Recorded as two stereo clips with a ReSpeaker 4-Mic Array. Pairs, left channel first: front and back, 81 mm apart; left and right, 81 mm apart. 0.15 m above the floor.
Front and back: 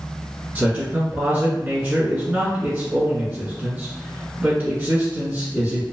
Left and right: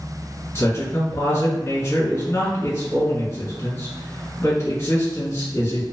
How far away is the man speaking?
About 1.3 m.